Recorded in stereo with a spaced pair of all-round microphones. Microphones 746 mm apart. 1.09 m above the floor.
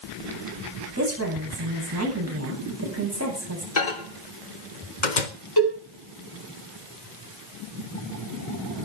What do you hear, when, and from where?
1.0 s a woman speaking: 20° right (ahead or behind), 9.5 m
3.8 s a microwave: 75° left (ahead or behind), 1.6 m
5.6 s a cowbell: 30° left (ahead or behind), 8 m